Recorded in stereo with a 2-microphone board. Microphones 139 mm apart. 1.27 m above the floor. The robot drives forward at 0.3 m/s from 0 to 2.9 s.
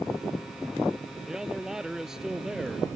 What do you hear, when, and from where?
1.3 s a man speaking: 5° right (ahead or behind)